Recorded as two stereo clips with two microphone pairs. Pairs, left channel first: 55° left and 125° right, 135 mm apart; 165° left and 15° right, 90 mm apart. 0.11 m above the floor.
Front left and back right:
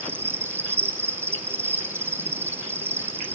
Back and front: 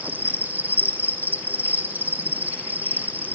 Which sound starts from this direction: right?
An insect, at 0.0 s.